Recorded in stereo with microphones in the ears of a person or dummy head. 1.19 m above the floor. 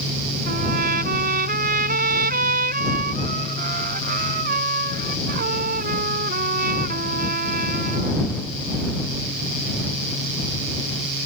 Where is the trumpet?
45° right (ahead or behind).